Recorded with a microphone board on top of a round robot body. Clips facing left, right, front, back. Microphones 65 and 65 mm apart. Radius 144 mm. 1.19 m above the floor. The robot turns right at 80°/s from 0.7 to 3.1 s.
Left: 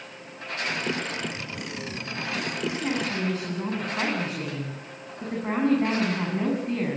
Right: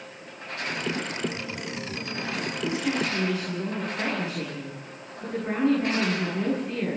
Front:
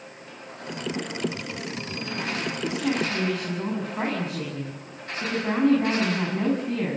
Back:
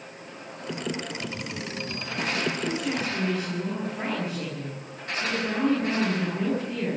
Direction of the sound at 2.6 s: 5° left.